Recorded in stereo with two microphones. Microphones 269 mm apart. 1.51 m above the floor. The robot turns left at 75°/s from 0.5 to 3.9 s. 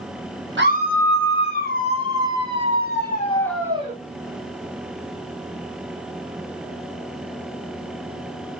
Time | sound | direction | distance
0.6 | a scream | 135° right | 1.1 m